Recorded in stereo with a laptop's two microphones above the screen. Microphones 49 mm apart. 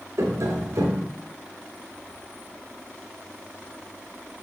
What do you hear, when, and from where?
0.2 s tapping: 85° right, 2.0 m